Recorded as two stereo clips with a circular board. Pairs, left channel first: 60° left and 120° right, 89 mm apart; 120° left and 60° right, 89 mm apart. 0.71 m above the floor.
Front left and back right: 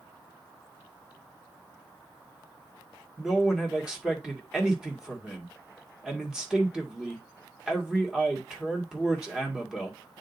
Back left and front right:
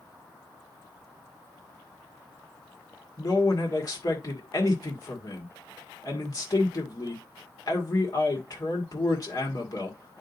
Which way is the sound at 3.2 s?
160° left.